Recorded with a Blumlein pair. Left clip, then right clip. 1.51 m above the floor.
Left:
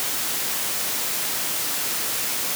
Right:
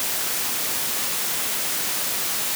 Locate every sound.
Only background noise.